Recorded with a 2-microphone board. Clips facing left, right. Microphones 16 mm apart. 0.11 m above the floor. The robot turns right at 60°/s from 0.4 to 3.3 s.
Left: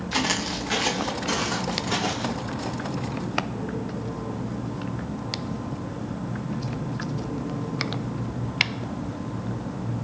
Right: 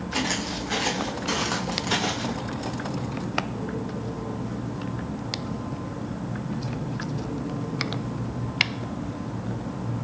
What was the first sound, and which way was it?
Footsteps, 45° left (ahead or behind).